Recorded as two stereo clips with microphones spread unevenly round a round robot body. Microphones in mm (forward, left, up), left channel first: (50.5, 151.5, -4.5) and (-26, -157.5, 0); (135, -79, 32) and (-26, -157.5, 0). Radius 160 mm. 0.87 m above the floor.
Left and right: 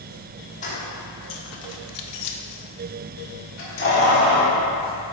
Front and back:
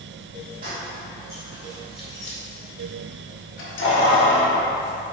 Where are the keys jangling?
145° left, 1.2 m; by 4.6 s 15° left, 2 m.